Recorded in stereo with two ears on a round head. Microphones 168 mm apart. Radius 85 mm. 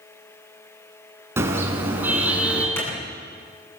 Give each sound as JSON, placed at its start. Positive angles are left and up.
{"t": 1.4, "sound": "a car horn", "side_deg": -15, "distance_m": 5.0}
{"t": 2.8, "sound": "a clap", "side_deg": 15, "distance_m": 10.0}